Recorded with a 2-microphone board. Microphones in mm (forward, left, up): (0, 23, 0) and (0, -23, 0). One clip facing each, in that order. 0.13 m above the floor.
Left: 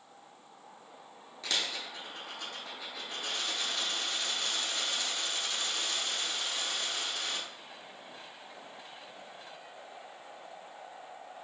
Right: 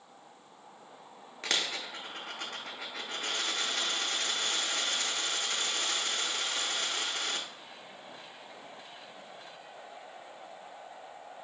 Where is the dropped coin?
55° right (ahead or behind), 0.7 m.